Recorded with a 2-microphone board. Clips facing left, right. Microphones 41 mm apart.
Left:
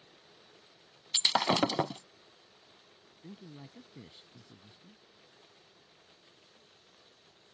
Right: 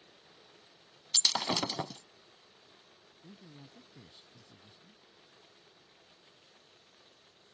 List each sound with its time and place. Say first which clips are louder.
1.1 s breaking glass: left 4 dB; 25° left (ahead or behind)
3.2 s a man speaking: left 5 dB; 25° left (ahead or behind)